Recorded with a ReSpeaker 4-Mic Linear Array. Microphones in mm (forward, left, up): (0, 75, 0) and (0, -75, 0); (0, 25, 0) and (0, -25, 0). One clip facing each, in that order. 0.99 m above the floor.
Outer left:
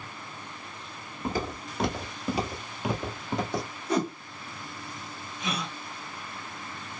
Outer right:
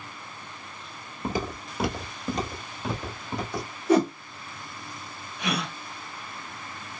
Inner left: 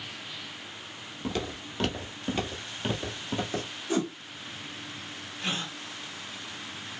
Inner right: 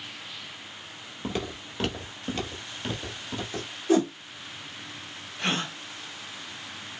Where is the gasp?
70° right (ahead or behind), 0.5 m.